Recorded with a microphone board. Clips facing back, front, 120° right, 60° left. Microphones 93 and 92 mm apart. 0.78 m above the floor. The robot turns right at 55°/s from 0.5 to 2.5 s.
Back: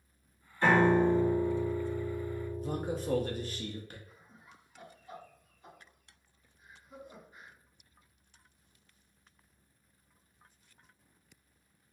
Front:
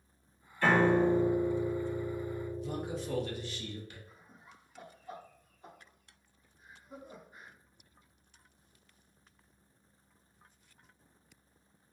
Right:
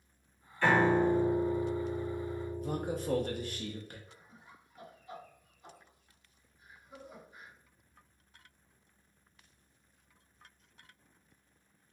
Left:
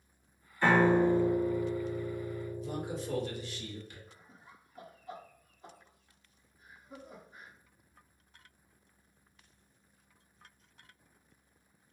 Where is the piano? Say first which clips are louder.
Back 1 dB, left 1 dB; 125° left, 1.4 m; by 3.6 s 130° right, 1.4 m.